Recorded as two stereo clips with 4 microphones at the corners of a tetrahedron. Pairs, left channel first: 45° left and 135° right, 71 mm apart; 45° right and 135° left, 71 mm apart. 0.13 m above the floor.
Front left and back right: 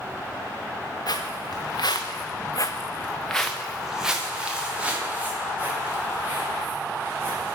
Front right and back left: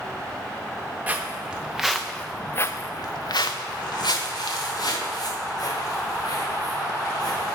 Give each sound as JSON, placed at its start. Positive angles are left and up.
{"t": 1.1, "sound": "footsteps", "azimuth_deg": 65, "distance_m": 1.0}